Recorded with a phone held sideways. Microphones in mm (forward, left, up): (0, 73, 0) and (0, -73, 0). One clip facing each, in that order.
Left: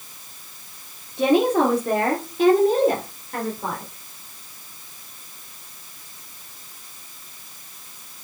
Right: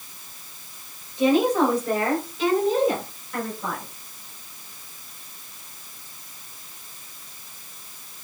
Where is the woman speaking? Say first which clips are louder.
Left 1 dB; 70° left (ahead or behind), 2 m; by 3.9 s 45° left (ahead or behind), 3.5 m.